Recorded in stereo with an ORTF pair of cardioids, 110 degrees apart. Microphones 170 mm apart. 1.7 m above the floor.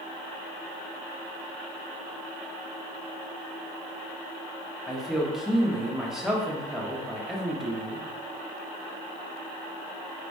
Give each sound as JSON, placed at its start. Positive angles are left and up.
{"t": 4.9, "sound": "a man speaking", "azimuth_deg": -5, "distance_m": 1.1}